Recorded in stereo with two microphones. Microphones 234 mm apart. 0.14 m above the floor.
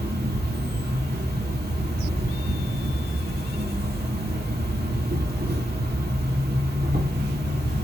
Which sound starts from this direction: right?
An insect, at 0.0 s.